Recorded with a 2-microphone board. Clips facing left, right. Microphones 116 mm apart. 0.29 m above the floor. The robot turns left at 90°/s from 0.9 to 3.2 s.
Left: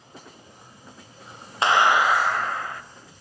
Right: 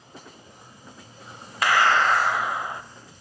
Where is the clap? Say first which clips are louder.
Left 1 dB; 55° left, 1.3 m; by 2.8 s 50° right, 1.3 m.